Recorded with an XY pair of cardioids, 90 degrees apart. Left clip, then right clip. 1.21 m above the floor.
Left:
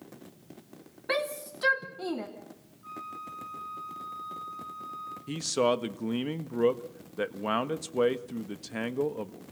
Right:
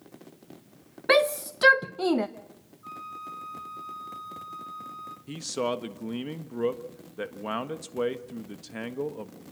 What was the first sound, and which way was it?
A shout, 65° right.